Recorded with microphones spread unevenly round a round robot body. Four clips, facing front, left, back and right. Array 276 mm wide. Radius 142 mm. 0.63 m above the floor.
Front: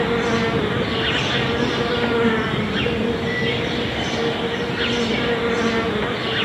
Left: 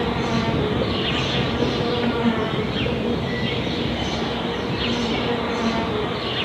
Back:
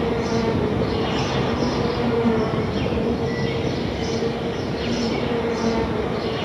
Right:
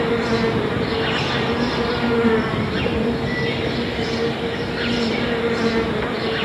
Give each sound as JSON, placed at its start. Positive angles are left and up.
{"t": 0.0, "sound": "an insect", "azimuth_deg": -45, "distance_m": 4.0}